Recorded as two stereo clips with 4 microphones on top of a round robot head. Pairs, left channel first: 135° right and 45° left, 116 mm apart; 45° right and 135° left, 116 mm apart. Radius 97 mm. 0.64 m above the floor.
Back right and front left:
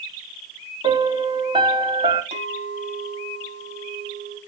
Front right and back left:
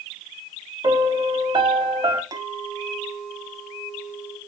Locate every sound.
0.8 s a piano: 90° left, 2.0 m
2.3 s a clink: 75° left, 3 m